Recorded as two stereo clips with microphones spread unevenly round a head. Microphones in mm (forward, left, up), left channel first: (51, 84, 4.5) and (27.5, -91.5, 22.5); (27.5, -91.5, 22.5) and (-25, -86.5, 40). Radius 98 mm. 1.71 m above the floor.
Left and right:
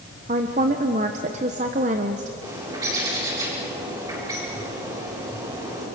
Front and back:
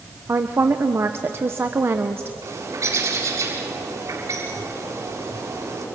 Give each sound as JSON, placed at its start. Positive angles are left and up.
{"t": 0.3, "sound": "a woman speaking", "azimuth_deg": -150, "distance_m": 1.2}
{"t": 2.4, "sound": "a bird", "azimuth_deg": -170, "distance_m": 7.5}